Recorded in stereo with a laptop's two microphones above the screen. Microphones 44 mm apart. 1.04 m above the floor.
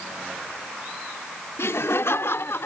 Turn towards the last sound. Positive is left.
turn(degrees=60)  # may be behind; listen again after turning